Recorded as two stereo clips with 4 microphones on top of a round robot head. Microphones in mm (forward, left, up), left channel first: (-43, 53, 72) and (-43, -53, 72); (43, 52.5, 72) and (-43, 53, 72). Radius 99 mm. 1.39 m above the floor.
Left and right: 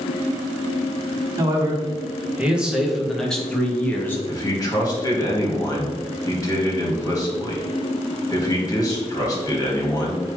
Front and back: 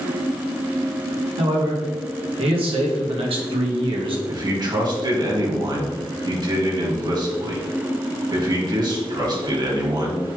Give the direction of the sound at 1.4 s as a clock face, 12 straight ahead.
5 o'clock.